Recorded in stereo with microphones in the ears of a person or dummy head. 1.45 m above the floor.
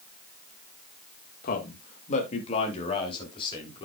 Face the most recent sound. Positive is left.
turn(degrees=25)  # may be behind; listen again after turning